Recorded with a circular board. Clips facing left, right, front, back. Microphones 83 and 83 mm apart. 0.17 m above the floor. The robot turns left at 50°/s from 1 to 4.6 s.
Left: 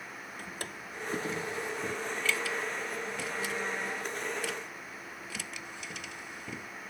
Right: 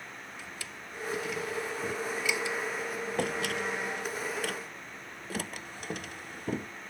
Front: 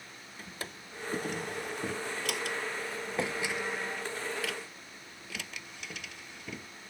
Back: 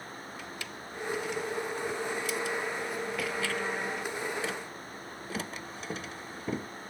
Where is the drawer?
50° left; by 6.7 s 130° right.